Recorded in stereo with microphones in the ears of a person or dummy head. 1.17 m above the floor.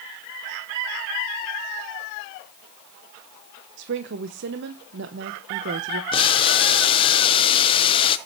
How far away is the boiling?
About 0.9 m.